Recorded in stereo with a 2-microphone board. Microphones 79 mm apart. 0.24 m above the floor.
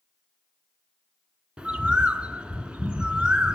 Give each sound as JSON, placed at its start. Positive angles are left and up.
{"t": 1.6, "sound": "a bird", "side_deg": -15, "distance_m": 0.6}